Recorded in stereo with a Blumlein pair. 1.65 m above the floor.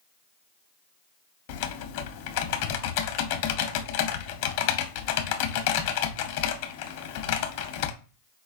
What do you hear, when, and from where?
1.5 s typing on a keyboard: 45° left, 0.6 m